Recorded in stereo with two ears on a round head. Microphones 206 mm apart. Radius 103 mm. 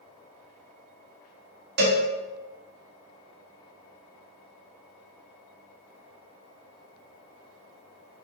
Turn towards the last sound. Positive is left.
turn(degrees=-50)  # may be behind; listen again after turning